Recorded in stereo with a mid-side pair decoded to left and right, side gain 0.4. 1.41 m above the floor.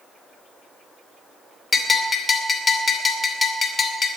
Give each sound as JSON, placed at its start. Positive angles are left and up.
{"t": 1.7, "sound": "a bell", "azimuth_deg": 40, "distance_m": 2.5}